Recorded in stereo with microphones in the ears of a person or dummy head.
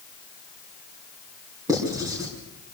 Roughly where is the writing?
Centre.